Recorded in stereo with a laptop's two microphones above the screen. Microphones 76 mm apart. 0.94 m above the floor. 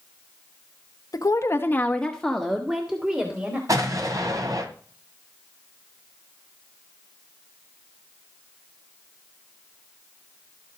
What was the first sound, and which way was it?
A woman speaking, 55° left (ahead or behind).